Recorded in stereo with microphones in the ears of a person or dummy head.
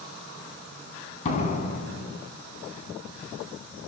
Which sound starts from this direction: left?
A door slam, at 1.2 s.